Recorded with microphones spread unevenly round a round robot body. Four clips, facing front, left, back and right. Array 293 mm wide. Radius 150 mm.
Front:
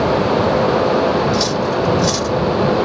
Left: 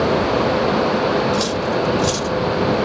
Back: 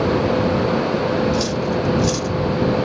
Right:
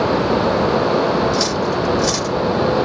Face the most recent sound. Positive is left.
turn(degrees=-30)